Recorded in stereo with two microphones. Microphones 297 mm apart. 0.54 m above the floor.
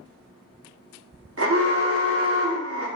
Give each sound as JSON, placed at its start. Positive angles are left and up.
{"t": 1.4, "sound": "an alarm", "side_deg": -50, "distance_m": 0.6}